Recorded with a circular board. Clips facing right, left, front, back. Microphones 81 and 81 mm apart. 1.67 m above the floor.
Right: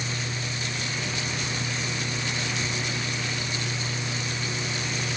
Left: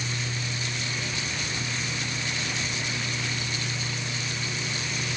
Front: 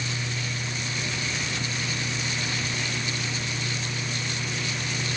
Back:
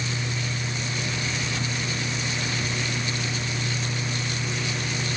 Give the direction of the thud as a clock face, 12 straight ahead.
No thud in this recording.